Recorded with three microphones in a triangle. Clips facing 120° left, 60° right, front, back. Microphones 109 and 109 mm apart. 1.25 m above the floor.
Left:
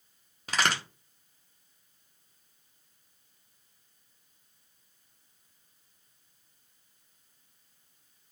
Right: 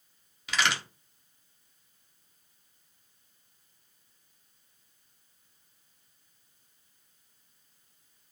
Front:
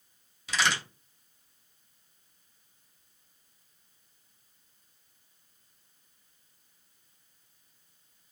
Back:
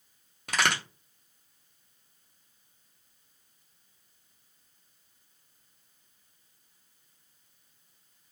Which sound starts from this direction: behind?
A crack, at 0.5 s.